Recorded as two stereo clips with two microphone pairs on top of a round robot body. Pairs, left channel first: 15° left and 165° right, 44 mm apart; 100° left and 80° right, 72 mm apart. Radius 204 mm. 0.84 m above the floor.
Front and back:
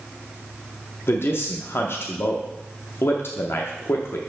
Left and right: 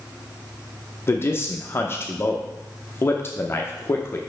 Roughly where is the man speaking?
Ahead left.